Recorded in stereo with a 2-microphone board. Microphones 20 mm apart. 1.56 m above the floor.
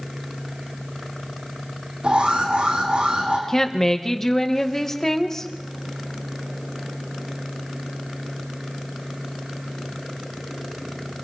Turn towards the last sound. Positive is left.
turn(degrees=20)  # may be behind; listen again after turning